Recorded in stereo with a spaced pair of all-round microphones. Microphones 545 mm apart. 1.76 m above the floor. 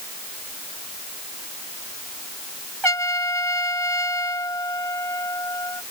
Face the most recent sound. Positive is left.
turn(degrees=-55)  # may be behind; listen again after turning